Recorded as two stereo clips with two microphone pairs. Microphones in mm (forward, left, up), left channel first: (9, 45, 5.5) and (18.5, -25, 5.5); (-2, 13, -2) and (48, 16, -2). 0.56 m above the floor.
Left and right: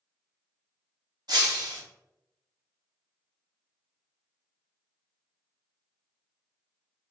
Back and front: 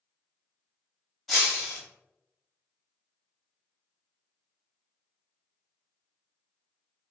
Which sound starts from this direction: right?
Breaking glass, at 1.3 s.